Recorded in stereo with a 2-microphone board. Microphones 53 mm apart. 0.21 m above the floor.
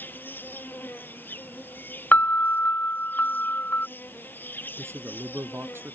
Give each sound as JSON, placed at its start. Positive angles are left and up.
{"t": 0.0, "sound": "an insect", "side_deg": 40}
{"t": 2.1, "sound": "a piano", "side_deg": 35}
{"t": 4.8, "sound": "a man speaking", "side_deg": -50}